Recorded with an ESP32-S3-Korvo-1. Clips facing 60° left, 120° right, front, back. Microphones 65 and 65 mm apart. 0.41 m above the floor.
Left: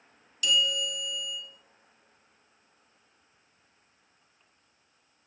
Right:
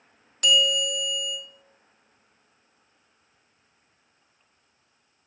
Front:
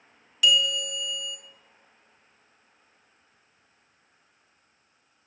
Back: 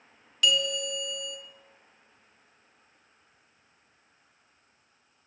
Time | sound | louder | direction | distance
0.4 | a bell | right 5 dB, front 3 dB | 85° right | 0.7 m